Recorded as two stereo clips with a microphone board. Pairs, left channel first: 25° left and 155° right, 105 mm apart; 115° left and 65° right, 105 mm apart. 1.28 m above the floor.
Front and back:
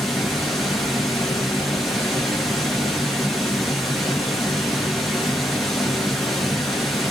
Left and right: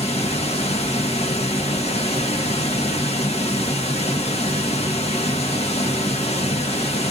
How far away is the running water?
About 0.9 m.